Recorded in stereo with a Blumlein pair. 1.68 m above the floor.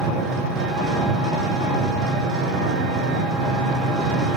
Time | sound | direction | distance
0.0 | an engine running | 20° right | 1.8 m